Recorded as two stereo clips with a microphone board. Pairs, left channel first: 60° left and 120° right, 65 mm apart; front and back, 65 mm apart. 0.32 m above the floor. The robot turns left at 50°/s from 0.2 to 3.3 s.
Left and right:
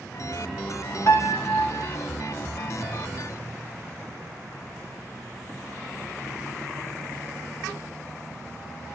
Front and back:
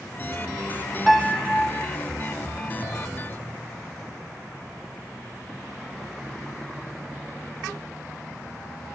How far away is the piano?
About 0.5 m.